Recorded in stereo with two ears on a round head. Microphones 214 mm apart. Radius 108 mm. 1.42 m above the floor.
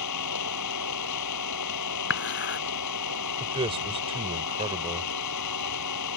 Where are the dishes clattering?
55° left (ahead or behind).